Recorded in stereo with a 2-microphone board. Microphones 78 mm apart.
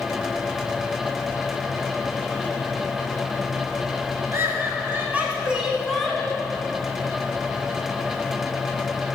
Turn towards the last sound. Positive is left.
turn(degrees=20)  # may be behind; listen again after turning